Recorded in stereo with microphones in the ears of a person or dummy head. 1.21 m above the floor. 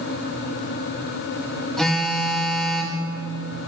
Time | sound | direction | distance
1.8 | a phone buzzing | 5° left (ahead or behind) | 1.2 m